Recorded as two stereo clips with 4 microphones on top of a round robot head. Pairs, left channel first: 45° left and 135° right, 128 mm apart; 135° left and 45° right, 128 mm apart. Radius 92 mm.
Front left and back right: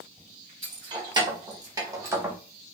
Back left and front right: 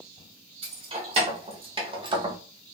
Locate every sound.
0.6 s keys jangling: 85° right, 1.7 m; by 2.4 s 70° right, 0.8 m